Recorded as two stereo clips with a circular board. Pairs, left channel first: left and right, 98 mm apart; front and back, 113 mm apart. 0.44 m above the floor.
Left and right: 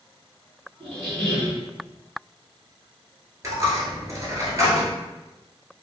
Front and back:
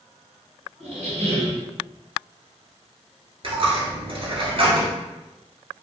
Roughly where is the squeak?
Behind.